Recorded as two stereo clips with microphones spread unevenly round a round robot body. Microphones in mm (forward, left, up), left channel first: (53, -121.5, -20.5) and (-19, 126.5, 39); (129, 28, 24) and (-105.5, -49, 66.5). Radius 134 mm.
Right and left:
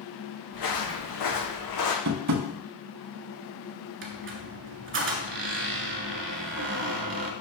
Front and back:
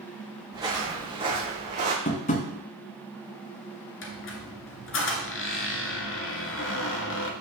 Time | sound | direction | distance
0.5 | footsteps | 85° right | 2.5 m
2.0 | tapping | 80° left | 0.9 m
4.0 | a squeak | 65° left | 1.1 m